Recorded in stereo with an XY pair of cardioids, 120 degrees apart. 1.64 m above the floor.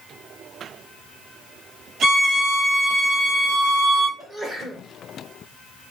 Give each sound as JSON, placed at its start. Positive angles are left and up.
{"t": 2.0, "sound": "a violin", "azimuth_deg": -70, "distance_m": 2.0}
{"t": 4.2, "sound": "a sneeze", "azimuth_deg": -30, "distance_m": 0.9}